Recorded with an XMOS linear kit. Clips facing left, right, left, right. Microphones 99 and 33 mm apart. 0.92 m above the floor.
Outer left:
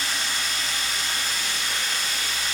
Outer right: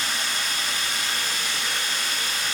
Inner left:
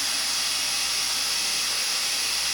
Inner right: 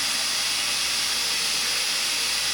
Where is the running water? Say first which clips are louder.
Outer right 1 dB, inner right 1 dB; 55° right (ahead or behind), 6.5 m.